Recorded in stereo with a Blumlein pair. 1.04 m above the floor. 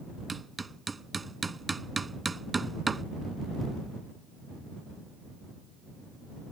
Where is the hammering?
10° right.